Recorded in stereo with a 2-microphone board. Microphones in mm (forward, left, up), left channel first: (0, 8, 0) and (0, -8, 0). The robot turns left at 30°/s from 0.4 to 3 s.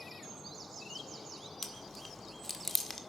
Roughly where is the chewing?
Centre.